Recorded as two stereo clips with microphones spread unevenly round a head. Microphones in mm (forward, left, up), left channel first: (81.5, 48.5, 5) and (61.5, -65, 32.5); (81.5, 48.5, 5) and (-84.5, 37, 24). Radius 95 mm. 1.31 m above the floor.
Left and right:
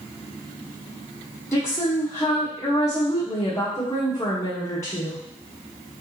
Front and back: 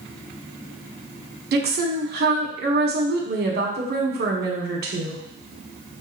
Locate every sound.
1.5 s a woman speaking: 155° left, 1.1 m